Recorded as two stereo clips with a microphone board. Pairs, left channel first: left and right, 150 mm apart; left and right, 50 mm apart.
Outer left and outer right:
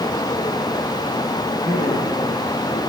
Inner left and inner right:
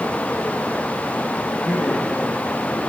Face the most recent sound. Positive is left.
turn(degrees=-20)  # may be behind; listen again after turning